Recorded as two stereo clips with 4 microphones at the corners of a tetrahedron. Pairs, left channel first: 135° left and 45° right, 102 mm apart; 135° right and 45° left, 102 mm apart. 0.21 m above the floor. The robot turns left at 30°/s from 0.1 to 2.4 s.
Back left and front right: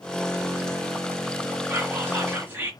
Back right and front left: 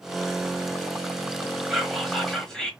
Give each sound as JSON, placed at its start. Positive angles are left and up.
{"t": 1.7, "sound": "whispering", "azimuth_deg": -40, "distance_m": 1.0}